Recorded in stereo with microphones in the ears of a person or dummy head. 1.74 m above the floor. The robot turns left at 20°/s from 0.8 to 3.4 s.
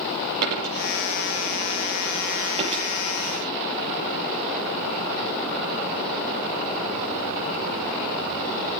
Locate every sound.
0.4 s a dropped coin: 70° right (ahead or behind), 6.5 m; by 2.9 s 30° right (ahead or behind), 6.5 m